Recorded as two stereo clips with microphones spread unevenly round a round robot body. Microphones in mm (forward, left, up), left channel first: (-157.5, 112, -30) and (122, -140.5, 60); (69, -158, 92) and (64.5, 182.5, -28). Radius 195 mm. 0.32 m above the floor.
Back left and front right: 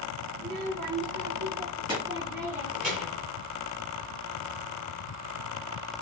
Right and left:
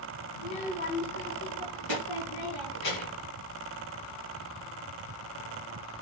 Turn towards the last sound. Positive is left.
turn(degrees=-135)